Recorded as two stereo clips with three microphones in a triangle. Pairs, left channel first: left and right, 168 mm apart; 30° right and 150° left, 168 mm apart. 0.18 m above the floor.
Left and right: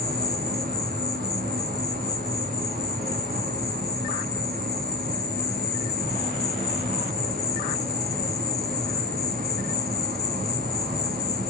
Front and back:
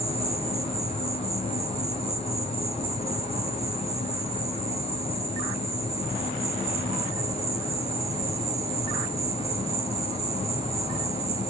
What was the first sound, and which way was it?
An insect, 80° right.